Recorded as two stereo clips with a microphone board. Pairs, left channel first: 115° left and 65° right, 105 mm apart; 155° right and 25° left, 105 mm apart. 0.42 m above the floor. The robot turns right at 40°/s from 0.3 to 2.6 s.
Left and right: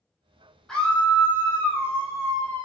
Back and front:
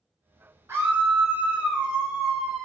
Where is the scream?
40° left, 0.9 m; by 2.6 s 115° left, 0.9 m.